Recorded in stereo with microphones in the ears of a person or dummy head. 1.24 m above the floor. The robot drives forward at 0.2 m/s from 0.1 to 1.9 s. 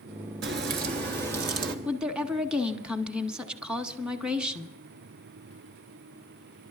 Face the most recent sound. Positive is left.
turn(degrees=-5)  # may be behind; listen again after turning